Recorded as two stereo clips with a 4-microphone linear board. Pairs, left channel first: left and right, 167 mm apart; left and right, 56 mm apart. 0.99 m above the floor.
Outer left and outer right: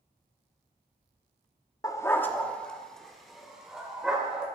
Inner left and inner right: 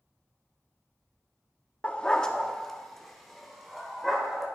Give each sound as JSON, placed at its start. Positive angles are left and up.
{"t": 1.8, "sound": "a dog barking", "side_deg": 20, "distance_m": 0.5}